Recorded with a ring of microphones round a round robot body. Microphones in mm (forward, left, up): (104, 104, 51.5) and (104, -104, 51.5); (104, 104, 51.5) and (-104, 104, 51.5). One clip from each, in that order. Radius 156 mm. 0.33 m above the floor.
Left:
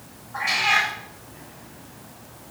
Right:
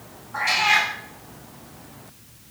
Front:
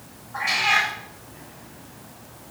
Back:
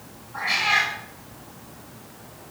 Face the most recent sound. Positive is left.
turn(degrees=-45)